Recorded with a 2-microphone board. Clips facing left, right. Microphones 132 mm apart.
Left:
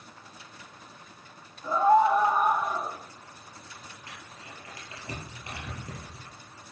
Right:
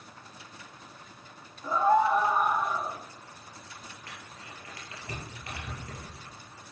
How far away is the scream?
About 1.2 m.